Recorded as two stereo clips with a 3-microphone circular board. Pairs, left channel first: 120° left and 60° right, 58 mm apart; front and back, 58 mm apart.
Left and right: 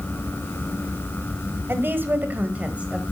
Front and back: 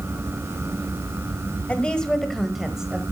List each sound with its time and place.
1.7 s a woman speaking: 55° right, 1.5 m; by 3.0 s 115° right, 1.4 m